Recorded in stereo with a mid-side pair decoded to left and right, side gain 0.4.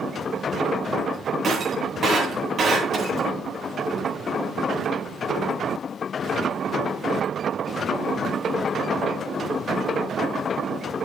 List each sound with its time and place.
1.4 s breaking glass: 55° right, 9.5 m